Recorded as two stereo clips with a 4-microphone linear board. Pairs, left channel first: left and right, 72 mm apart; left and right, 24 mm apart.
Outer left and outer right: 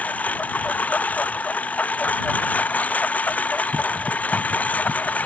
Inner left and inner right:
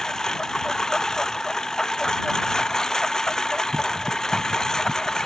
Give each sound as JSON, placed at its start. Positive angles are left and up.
{"t": 0.0, "sound": "a lawn mower", "side_deg": 20}